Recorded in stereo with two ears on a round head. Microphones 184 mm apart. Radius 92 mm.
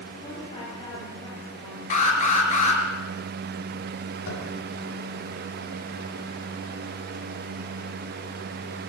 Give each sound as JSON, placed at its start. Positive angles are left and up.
{"t": 0.2, "sound": "a woman speaking", "side_deg": 25, "distance_m": 8.0}
{"t": 1.9, "sound": "an alarm", "side_deg": 35, "distance_m": 4.5}
{"t": 4.3, "sound": "tapping", "side_deg": 85, "distance_m": 6.5}